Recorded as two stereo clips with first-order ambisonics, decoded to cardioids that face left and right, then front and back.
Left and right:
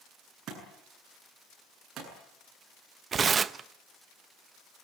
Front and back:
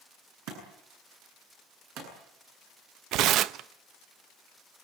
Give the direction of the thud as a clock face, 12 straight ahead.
5 o'clock.